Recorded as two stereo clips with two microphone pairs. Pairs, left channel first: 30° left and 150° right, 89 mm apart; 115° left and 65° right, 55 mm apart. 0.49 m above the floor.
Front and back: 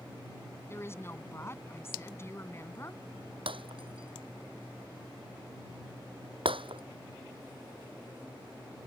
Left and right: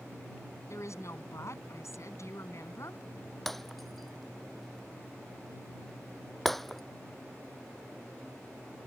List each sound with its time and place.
0.7 s a woman speaking: 90° left
3.5 s breaking glass: 160° right